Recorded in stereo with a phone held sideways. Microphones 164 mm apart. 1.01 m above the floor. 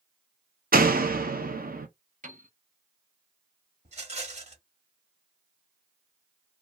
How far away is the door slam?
About 0.6 m.